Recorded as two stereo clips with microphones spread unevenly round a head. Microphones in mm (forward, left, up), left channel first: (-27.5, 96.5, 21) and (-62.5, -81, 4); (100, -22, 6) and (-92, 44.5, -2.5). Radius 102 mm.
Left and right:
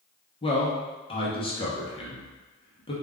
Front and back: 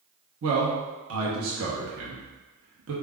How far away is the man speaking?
About 1.1 m.